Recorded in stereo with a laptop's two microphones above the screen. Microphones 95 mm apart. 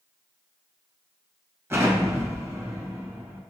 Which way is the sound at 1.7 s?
25° right (ahead or behind).